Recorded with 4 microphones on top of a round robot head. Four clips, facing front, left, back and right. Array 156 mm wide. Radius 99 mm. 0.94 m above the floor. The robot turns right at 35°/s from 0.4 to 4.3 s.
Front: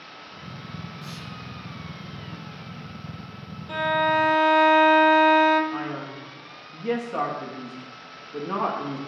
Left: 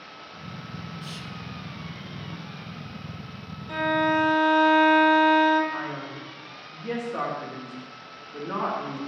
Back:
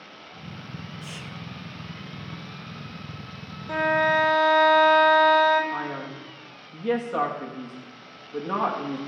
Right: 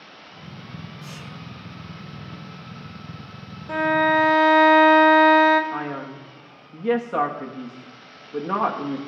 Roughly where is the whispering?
Behind right.